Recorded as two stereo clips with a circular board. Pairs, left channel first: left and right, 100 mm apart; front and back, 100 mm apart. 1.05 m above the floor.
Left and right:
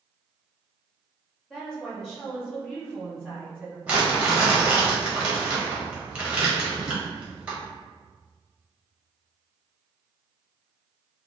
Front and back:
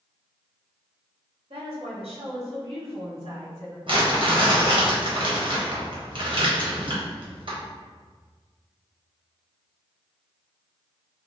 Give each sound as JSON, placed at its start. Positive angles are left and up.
{"t": 1.5, "sound": "a woman speaking", "azimuth_deg": 175, "distance_m": 1.4}
{"t": 3.9, "sound": "crumpling", "azimuth_deg": -165, "distance_m": 1.3}